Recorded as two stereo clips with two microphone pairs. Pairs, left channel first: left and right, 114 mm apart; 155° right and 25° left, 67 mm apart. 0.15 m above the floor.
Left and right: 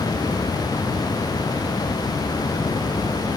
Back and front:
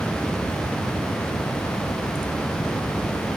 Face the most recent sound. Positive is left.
No sound to turn to.